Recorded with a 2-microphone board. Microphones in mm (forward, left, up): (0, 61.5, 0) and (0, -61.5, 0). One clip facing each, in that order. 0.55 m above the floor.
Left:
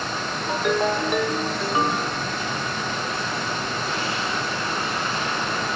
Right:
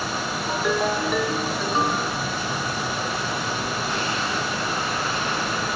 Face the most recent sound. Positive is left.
turn(degrees=10)  # may be behind; listen again after turning